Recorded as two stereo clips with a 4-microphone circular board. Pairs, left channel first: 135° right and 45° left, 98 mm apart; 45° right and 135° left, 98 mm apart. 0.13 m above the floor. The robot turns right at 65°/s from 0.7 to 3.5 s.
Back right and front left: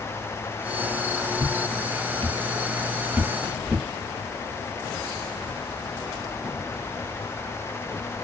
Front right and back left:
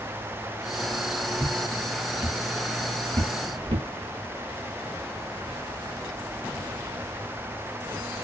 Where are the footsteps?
20° left, 2.0 m; by 3.9 s 120° left, 1.1 m.